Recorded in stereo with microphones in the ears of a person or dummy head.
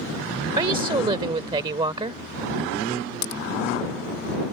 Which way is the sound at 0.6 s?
25° right (ahead or behind).